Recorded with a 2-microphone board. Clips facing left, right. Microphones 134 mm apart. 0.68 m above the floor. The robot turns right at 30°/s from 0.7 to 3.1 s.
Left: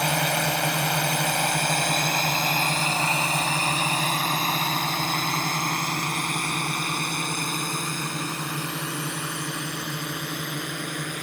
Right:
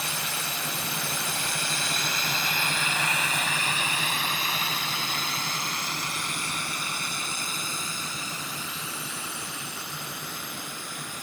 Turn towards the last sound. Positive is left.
turn(degrees=70)  # may be behind; listen again after turning